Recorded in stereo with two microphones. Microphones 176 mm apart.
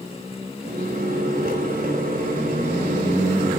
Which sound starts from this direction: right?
A microwave, at 0.7 s.